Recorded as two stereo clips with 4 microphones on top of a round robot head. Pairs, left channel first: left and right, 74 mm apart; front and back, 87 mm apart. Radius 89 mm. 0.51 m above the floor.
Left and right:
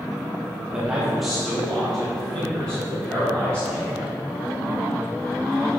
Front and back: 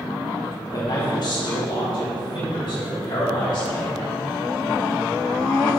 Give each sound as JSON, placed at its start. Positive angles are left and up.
{"t": 0.7, "sound": "a man speaking", "azimuth_deg": -20, "distance_m": 1.2}